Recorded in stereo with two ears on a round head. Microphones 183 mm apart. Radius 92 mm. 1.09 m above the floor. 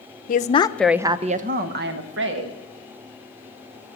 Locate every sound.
0.3 s a woman speaking: 45° left (ahead or behind), 0.8 m; by 2.6 s 70° right (ahead or behind), 1.8 m